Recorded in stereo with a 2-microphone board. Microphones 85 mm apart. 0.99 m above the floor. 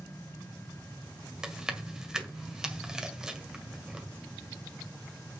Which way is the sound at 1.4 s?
10° right (ahead or behind).